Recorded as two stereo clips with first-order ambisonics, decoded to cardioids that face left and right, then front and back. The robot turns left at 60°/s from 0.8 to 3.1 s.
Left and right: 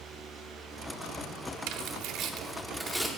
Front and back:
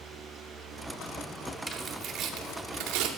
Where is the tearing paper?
95° right, 0.9 m; by 3.1 s 175° left, 0.9 m.